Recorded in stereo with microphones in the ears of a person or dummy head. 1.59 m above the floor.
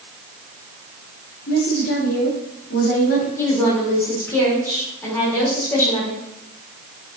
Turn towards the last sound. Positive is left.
turn(degrees=10)  # may be behind; listen again after turning